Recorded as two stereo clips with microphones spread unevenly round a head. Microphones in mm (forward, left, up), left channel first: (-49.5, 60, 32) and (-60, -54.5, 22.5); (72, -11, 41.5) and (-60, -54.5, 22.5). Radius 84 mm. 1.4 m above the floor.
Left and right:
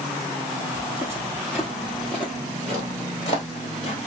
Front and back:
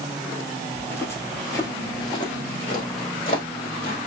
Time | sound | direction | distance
0.8 | footsteps | 40° right | 1.6 m